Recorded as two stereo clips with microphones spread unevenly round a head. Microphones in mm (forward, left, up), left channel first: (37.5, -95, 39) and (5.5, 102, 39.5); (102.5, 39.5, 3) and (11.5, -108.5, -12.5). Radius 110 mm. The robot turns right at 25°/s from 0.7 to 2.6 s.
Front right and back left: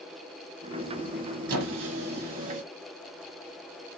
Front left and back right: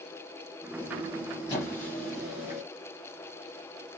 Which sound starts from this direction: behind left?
A squeak, at 1.5 s.